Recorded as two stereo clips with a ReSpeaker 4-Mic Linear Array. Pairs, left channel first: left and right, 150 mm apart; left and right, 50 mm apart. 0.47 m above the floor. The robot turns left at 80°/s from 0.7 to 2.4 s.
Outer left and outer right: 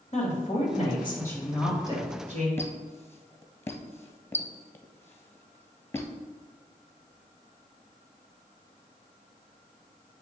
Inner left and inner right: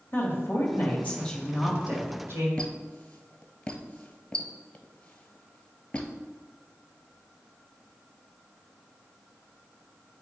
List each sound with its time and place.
0.1 s a woman speaking: 65° left, 2 m; by 2.5 s 70° right, 2 m
2.6 s a squeak: 15° left (ahead or behind), 1.0 m